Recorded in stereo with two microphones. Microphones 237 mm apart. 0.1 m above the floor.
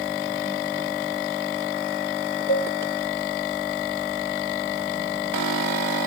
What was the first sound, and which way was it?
A cowbell, 60° left (ahead or behind).